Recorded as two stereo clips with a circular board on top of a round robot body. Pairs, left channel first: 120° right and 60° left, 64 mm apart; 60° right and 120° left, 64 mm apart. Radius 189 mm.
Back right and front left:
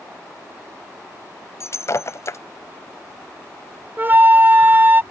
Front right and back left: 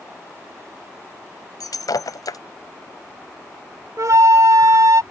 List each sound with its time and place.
1.6 s breaking glass: 75° right
4.0 s a flute: 115° left